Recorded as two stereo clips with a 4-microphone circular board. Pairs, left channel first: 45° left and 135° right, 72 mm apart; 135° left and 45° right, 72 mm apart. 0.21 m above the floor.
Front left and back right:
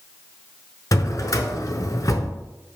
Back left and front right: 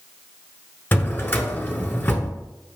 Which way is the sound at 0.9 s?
80° left.